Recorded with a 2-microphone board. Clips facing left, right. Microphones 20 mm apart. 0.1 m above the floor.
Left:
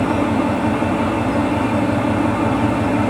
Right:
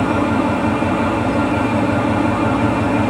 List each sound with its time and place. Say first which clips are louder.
0.0 s an engine running: right 1 dB; 15° right (ahead or behind), 3 m